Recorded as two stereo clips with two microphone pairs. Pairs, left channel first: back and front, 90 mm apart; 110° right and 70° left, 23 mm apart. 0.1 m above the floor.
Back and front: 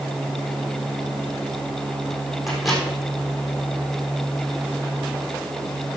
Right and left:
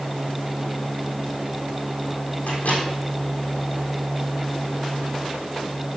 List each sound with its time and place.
2.5 s a microwave: 95° right, 3.5 m